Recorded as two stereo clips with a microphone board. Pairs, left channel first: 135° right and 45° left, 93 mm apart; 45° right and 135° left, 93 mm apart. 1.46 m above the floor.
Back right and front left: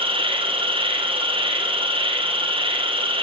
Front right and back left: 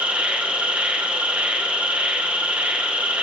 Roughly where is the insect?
Ahead left.